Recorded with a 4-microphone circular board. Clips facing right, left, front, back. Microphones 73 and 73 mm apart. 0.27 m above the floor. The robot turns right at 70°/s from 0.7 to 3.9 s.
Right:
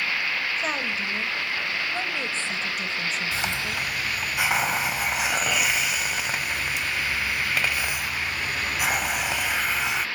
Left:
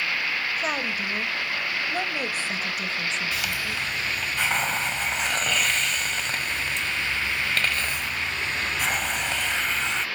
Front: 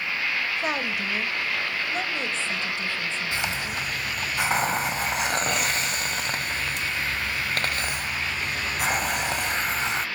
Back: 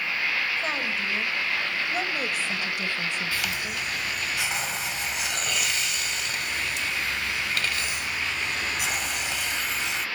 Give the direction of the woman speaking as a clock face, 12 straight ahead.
11 o'clock.